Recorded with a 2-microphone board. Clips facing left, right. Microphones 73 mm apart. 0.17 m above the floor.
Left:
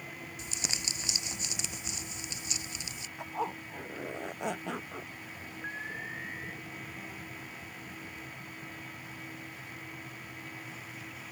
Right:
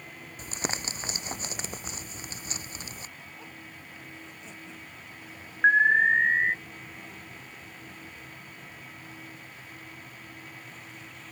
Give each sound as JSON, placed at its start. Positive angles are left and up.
{"t": 0.4, "sound": "crumpling", "side_deg": -45}
{"t": 3.2, "sound": "a zipper", "side_deg": 75}
{"t": 5.6, "sound": "an alarm", "side_deg": -80}